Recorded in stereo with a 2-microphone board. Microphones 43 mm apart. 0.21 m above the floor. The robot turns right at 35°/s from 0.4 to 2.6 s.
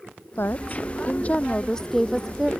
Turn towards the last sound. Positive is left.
turn(degrees=-165)